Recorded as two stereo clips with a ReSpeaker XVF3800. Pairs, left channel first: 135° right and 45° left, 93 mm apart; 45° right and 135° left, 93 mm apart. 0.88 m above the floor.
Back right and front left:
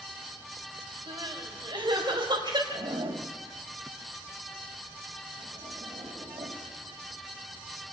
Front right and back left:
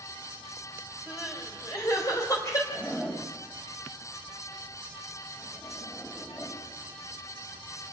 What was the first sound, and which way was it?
Crying, 10° left.